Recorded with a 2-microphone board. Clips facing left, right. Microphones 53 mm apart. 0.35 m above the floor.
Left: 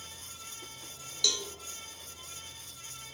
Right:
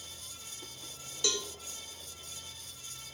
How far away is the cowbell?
About 1.7 m.